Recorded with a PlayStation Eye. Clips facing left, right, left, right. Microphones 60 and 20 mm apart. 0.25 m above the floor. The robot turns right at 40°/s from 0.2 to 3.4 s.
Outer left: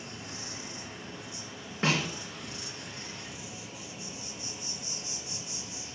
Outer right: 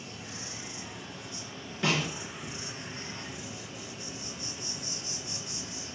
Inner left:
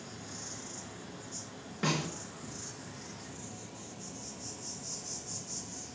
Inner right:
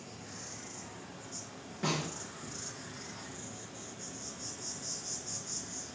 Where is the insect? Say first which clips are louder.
Even, inner left 2 dB; 115° left, 3 m; by 6.0 s 120° right, 3 m.